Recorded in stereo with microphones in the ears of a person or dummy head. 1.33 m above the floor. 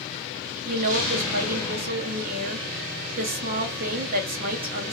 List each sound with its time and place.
0.7 s a woman speaking: 45° right (ahead or behind), 0.7 m